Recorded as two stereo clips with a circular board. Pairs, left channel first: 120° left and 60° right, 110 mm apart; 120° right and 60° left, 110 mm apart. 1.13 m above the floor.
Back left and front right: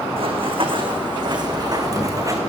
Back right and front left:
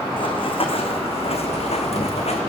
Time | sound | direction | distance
0.2 | running footsteps | 85° right | 3 m